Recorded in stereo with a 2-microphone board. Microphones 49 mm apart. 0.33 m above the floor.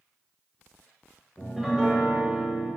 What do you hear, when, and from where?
1.4 s a piano: centre (ahead or behind), 1.6 m